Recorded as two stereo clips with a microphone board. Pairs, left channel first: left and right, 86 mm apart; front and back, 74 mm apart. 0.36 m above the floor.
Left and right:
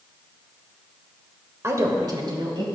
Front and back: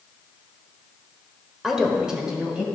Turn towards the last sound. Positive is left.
turn(degrees=-105)